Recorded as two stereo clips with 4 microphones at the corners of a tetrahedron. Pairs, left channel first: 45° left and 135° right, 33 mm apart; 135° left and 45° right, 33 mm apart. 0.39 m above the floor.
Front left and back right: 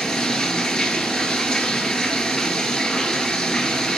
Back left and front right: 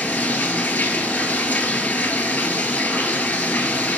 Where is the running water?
115° left, 0.8 m.